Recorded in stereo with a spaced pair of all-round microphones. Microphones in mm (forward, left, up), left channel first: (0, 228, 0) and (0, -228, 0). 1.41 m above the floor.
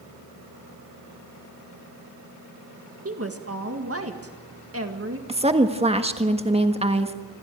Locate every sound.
3.0 s a woman speaking: 30° right (ahead or behind), 1.8 m
5.3 s a woman speaking: 15° right (ahead or behind), 1.5 m